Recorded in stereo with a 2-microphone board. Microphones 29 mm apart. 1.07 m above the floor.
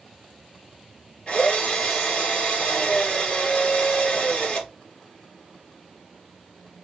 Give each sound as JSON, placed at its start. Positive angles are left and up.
{"t": 1.3, "sound": "a drill", "side_deg": 35, "distance_m": 2.5}